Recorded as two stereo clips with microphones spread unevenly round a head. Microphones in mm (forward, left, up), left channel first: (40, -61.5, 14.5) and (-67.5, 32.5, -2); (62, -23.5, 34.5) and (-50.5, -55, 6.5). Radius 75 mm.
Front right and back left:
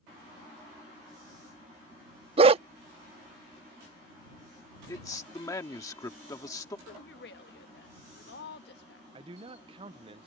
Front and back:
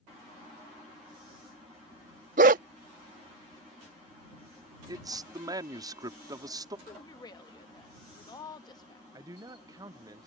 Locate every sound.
2.4 s a dog barking: 175° right
4.9 s a man speaking: 110° right
6.9 s a woman speaking: 40° right
9.1 s a man speaking: 165° left